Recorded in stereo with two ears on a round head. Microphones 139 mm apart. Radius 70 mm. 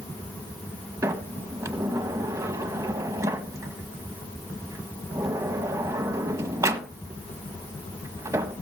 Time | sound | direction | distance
1.0 | a sliding door | 20° right (ahead or behind) | 1.3 m